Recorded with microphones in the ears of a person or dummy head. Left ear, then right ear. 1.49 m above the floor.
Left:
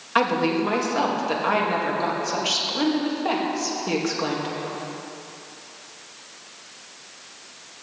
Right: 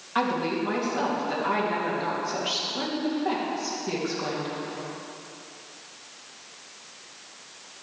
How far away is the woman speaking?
About 2.5 m.